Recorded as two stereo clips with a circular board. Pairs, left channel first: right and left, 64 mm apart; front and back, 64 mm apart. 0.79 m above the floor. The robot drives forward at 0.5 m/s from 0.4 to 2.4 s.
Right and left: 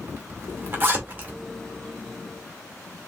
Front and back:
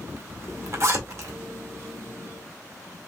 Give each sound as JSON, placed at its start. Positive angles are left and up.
{"t": 0.1, "sound": "a zipper", "azimuth_deg": 140, "distance_m": 1.6}